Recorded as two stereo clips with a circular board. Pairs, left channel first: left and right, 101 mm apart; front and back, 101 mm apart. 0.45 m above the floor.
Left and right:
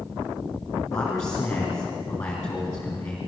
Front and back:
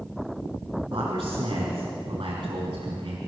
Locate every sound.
0.9 s a man speaking: 145° left, 4.5 m